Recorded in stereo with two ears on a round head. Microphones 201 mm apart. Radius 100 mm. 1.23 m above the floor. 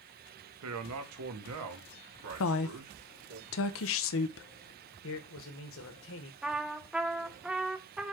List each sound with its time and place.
0.6 s a man speaking: 70° right (ahead or behind), 1.1 m; by 3.4 s 75° right (ahead or behind), 2.5 m
2.4 s a woman speaking: 60° left (ahead or behind), 0.6 m
5.0 s a man speaking: 65° left (ahead or behind), 1.4 m
6.4 s a trumpet: 5° right (ahead or behind), 0.5 m